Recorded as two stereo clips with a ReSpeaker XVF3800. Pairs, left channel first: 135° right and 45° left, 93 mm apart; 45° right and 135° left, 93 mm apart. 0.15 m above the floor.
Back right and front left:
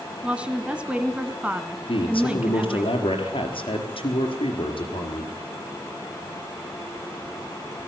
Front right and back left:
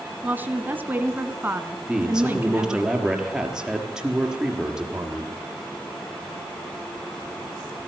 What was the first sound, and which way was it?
A woman speaking, 100° left.